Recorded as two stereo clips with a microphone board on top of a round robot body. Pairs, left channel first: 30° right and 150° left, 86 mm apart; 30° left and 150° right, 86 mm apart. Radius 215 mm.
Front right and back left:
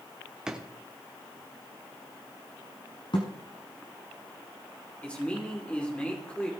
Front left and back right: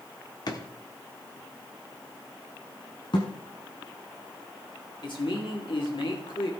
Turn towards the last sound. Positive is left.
turn(degrees=45)